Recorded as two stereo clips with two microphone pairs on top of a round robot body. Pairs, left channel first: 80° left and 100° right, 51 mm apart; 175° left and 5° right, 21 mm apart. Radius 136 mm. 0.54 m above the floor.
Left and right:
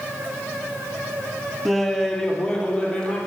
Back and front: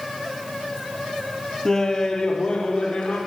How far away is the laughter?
About 1.4 m.